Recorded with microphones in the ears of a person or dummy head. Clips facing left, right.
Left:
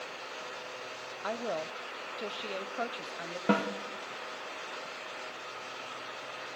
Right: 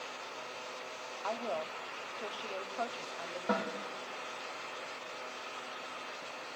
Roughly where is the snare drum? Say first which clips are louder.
Left 6 dB; left.